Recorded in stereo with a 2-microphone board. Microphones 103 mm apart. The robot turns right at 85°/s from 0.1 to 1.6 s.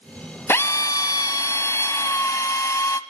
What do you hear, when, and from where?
0.5 s a drill: 40° left, 0.7 m; by 3.0 s 130° left, 0.7 m